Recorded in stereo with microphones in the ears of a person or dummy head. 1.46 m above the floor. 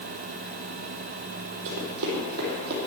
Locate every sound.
1.6 s running footsteps: 60° right (ahead or behind), 3.5 m; by 2.8 s 50° right (ahead or behind), 3.5 m